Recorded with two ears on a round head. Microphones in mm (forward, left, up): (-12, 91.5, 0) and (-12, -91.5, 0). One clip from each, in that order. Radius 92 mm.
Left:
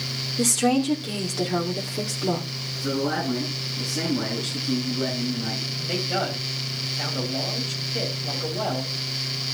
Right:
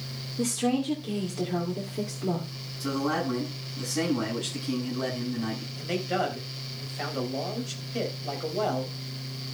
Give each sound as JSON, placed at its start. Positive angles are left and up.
{"t": 0.4, "sound": "a woman speaking", "side_deg": 35, "distance_m": 2.0}
{"t": 2.8, "sound": "a man speaking", "side_deg": -30, "distance_m": 7.5}
{"t": 5.8, "sound": "a man speaking", "side_deg": -20, "distance_m": 3.5}